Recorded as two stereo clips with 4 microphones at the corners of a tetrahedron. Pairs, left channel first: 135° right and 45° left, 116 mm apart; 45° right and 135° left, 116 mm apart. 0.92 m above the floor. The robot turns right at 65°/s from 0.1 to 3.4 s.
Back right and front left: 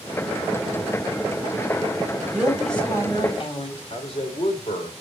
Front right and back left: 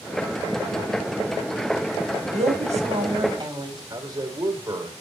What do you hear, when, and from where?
2.3 s a woman speaking: 120° left, 3 m; by 3.8 s 175° right, 3 m
3.9 s a man speaking: 165° right, 3 m